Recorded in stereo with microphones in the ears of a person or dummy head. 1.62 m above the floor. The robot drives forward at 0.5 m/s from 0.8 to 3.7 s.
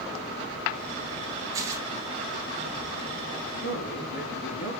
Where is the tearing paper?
20° right (ahead or behind), 1.0 m; by 1.9 s 25° right (ahead or behind), 0.9 m.